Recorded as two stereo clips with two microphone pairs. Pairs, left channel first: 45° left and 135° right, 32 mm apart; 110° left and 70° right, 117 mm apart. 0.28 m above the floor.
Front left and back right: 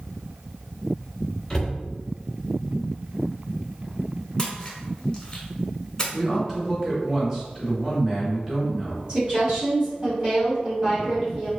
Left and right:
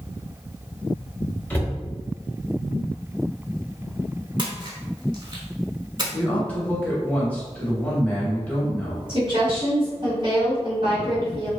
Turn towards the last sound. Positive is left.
turn(degrees=-85)